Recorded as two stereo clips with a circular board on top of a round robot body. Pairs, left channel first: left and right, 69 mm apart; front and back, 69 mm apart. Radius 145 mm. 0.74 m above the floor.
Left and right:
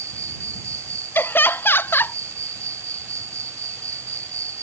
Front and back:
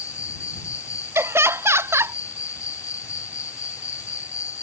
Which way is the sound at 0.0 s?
45° right.